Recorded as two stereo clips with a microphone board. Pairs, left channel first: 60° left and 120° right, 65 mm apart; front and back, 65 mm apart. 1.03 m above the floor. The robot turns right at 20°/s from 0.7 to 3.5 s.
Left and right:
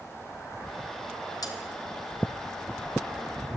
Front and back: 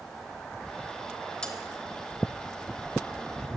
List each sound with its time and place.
1.4 s cutlery clinking: 75° left, 2.5 m; by 1.6 s 80° left, 2.5 m